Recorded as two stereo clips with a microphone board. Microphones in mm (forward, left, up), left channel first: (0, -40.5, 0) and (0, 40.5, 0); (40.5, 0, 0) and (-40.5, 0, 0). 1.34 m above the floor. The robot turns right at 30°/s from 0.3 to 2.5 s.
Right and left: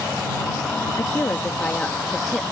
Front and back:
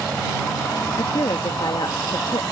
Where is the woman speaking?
40° right; by 2.4 s 5° left.